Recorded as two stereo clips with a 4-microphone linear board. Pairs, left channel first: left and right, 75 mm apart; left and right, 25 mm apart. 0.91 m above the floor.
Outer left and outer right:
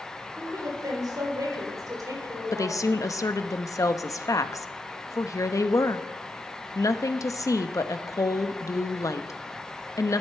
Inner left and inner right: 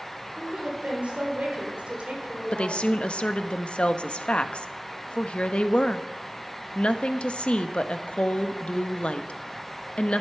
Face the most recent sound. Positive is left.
turn(degrees=45)  # may be behind; listen again after turning